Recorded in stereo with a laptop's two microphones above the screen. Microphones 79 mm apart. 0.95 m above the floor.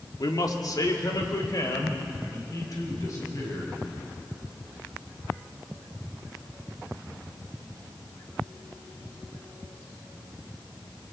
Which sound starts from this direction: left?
A man speaking, at 0.2 s.